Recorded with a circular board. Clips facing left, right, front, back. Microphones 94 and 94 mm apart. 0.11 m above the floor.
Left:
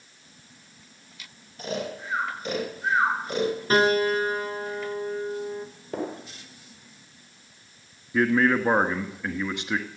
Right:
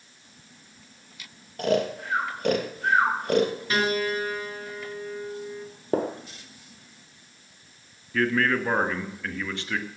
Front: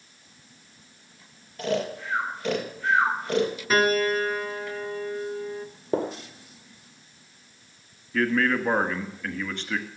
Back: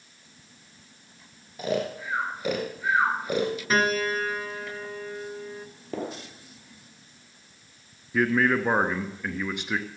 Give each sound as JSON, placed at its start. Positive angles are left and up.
{"t": 1.6, "sound": "snoring", "azimuth_deg": -100, "distance_m": 2.5}
{"t": 3.7, "sound": "a piano", "azimuth_deg": 90, "distance_m": 1.2}
{"t": 5.9, "sound": "a gunshot", "azimuth_deg": -55, "distance_m": 1.8}
{"t": 8.1, "sound": "a man speaking", "azimuth_deg": 125, "distance_m": 1.2}